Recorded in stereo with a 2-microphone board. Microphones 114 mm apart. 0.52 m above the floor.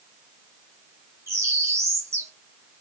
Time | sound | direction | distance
1.3 | a bird | 20° right (ahead or behind) | 1.2 m